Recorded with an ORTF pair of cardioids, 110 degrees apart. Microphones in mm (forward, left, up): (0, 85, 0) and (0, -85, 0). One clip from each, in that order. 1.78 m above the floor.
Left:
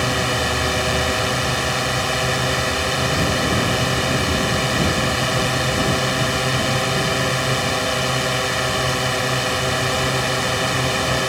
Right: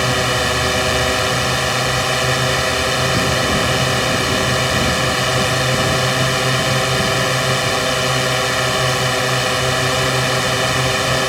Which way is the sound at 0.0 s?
20° right.